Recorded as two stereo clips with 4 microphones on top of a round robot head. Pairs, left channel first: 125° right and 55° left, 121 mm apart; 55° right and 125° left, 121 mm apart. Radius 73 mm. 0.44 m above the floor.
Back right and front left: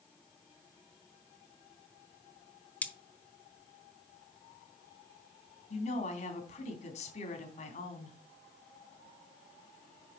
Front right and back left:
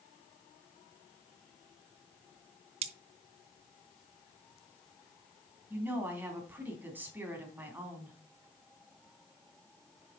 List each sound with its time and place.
2.8 s cutlery clinking: 155° left, 1.0 m
5.7 s a woman speaking: 160° right, 3 m